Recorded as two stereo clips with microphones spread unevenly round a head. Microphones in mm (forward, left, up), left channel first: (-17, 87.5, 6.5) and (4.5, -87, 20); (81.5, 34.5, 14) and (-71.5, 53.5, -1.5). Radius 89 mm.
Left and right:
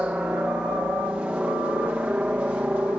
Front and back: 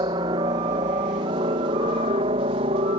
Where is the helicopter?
165° right.